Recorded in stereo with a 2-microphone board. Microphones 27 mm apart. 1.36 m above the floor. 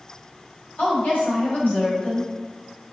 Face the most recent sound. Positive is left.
turn(degrees=70)  # may be behind; listen again after turning